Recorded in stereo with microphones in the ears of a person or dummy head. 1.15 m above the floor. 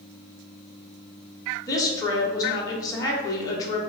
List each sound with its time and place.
1.7 s a woman speaking: 25° left (ahead or behind), 0.8 m